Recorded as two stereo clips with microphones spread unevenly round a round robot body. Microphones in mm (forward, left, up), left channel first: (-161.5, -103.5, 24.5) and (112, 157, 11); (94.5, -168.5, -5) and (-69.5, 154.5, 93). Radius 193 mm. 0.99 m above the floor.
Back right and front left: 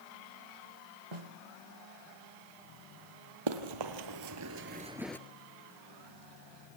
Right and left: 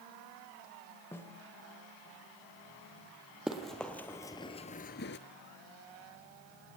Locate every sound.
1.1 s a snare drum: 25° left, 1.3 m
3.5 s running footsteps: 35° left, 1.9 m; by 5.2 s 90° right, 0.9 m